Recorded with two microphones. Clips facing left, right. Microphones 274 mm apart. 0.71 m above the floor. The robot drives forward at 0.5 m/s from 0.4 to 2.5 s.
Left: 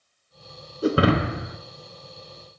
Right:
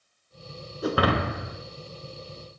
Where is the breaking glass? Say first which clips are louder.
Left 5 dB; 30° left (ahead or behind), 0.7 m; by 1.6 s 20° left (ahead or behind), 1.0 m.